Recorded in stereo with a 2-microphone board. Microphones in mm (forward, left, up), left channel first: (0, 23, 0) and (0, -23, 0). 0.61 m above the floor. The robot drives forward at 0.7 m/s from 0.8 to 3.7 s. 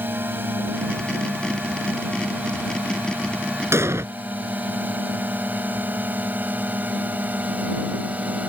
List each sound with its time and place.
0.0 s a drone: 50° right (ahead or behind); by 8.5 s 35° right (ahead or behind)
3.7 s an explosion: 75° right (ahead or behind)